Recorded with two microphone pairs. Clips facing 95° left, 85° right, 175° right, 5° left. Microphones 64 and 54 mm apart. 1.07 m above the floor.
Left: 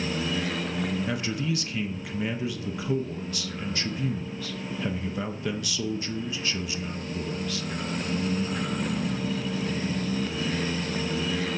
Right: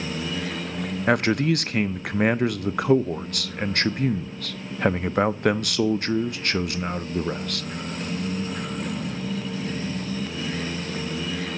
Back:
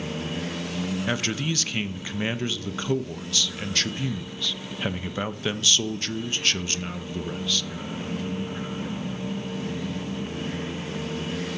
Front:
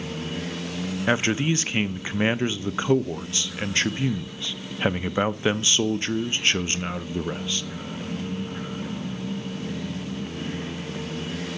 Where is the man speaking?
55° right, 0.5 m.